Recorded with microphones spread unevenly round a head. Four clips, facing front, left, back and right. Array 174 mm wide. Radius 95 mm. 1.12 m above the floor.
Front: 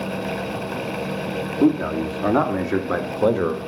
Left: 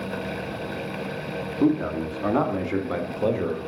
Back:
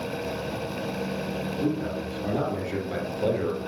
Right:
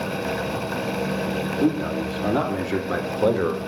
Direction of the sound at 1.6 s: 5° left.